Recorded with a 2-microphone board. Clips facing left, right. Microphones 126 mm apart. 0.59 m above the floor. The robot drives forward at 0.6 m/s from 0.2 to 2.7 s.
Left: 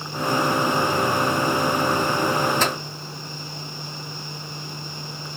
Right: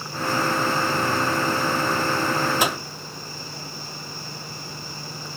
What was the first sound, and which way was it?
A microwave, 10° right (ahead or behind).